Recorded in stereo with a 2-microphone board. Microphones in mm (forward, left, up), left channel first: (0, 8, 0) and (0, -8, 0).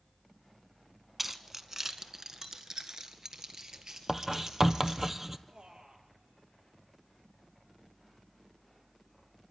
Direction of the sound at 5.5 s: 60° right (ahead or behind).